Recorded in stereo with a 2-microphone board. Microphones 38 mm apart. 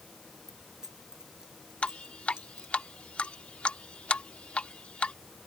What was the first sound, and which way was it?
Keys jangling, 15° right (ahead or behind).